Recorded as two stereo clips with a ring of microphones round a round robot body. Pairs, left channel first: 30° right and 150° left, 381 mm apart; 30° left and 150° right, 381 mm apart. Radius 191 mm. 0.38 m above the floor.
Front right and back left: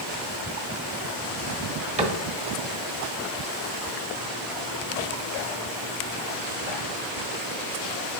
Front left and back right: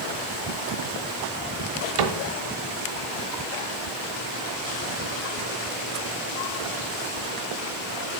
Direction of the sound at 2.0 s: 140° right.